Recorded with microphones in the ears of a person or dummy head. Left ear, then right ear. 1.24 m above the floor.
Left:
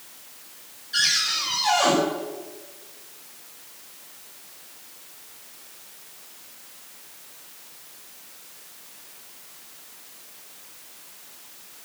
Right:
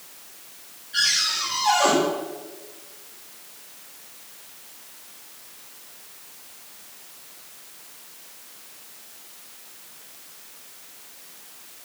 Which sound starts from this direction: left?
A cupboard door, at 0.9 s.